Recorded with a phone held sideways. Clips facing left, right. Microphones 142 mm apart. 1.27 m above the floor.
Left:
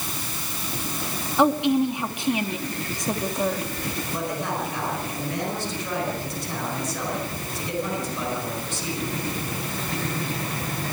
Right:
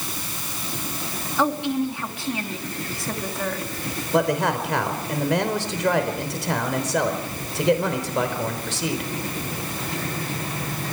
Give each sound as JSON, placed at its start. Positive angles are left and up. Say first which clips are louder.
{"t": 1.4, "sound": "a woman speaking", "louder": "left 3 dB", "side_deg": 20, "distance_m": 2.5}
{"t": 4.1, "sound": "a man speaking", "louder": "right 9 dB", "side_deg": -90, "distance_m": 4.0}